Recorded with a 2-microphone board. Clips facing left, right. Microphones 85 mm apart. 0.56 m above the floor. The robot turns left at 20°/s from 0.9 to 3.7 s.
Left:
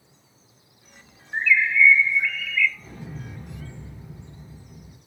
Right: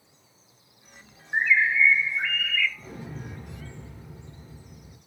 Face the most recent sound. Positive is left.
turn(degrees=10)  # may be behind; listen again after turning